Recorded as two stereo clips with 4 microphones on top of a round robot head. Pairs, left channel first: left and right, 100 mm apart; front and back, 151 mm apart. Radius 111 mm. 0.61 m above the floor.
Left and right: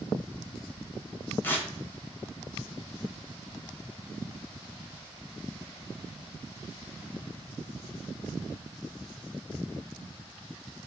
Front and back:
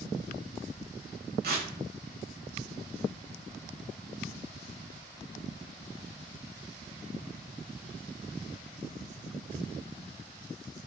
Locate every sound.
1.4 s tearing paper: 160° left, 0.9 m